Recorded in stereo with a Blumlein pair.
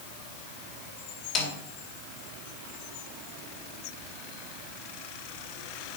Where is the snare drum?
30° left, 2.0 m.